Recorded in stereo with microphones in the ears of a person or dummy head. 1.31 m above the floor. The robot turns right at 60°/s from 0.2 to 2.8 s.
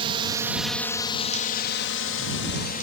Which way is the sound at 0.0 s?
25° right (ahead or behind).